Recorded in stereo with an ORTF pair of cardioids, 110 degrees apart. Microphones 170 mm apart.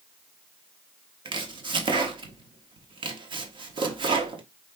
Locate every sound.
1.2 s chopping: 30° right, 1.0 m